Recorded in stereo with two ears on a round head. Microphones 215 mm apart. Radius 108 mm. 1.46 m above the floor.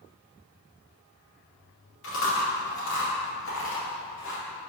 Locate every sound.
2.0 s chewing: 55° left (ahead or behind), 2.5 m